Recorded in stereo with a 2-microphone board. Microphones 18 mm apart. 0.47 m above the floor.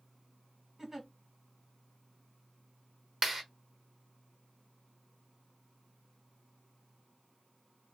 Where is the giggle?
20° right (ahead or behind), 0.9 m.